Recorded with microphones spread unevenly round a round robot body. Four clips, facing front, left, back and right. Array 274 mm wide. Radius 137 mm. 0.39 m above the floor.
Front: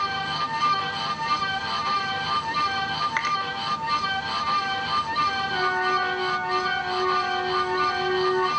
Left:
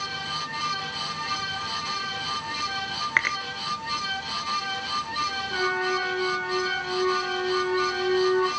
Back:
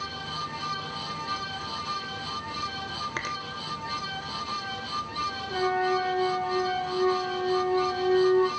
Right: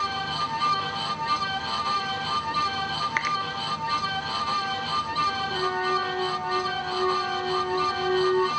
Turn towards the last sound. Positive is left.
turn(degrees=-160)